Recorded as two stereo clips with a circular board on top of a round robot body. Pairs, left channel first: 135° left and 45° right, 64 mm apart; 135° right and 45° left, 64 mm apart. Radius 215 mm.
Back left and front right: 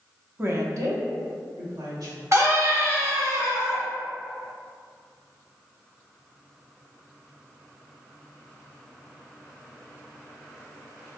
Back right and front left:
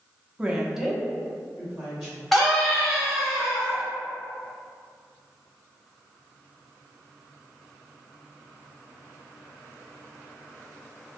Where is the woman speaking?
15° right, 0.8 m; by 2.2 s 50° right, 2.5 m.